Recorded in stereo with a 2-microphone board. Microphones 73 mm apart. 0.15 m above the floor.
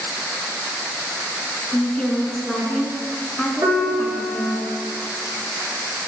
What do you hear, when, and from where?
1.7 s a woman speaking: 10° left (ahead or behind), 1.3 m
3.6 s a piano: 55° right (ahead or behind), 2.5 m